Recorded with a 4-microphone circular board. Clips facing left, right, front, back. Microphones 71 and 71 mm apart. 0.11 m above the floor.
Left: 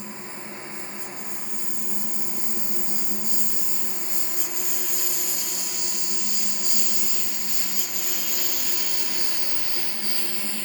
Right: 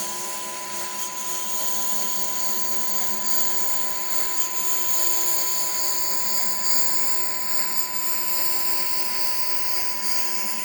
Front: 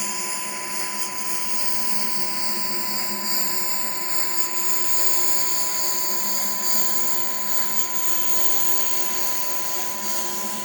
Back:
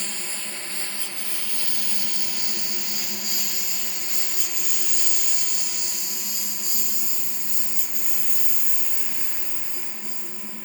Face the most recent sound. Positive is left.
turn(degrees=-15)